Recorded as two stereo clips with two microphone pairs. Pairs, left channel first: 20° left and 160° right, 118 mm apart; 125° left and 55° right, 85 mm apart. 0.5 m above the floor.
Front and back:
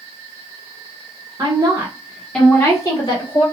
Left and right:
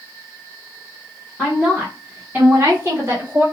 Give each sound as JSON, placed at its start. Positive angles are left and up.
{"t": 1.4, "sound": "a woman speaking", "azimuth_deg": -150, "distance_m": 1.3}